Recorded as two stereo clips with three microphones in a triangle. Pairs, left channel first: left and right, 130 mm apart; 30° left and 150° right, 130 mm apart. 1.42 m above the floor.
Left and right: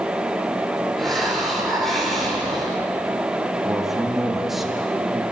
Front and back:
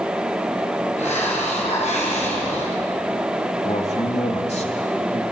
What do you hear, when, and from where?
1.0 s a hiss: 5° left, 6 m
3.6 s a man speaking: straight ahead, 3 m